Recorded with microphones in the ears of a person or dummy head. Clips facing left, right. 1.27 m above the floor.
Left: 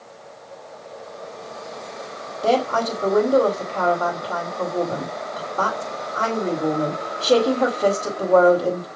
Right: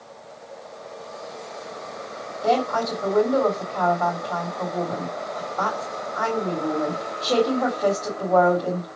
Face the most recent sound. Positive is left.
turn(degrees=45)  # may be behind; listen again after turning